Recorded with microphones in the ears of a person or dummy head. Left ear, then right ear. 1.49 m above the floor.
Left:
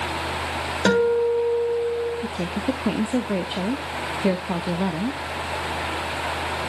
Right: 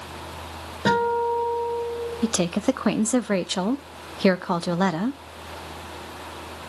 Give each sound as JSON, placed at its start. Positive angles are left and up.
{"t": 0.8, "sound": "a guitar", "side_deg": 70, "distance_m": 6.5}
{"t": 2.2, "sound": "a woman speaking", "side_deg": -55, "distance_m": 0.5}